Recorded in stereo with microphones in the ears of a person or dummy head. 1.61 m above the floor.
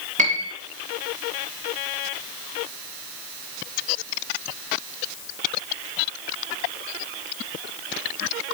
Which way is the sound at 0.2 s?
40° right (ahead or behind).